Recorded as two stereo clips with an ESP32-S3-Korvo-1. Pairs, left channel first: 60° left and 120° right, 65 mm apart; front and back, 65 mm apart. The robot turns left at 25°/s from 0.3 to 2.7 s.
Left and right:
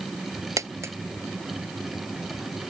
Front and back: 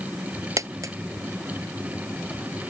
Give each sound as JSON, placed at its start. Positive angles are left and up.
{"t": 0.6, "sound": "a dropped coin", "azimuth_deg": -155}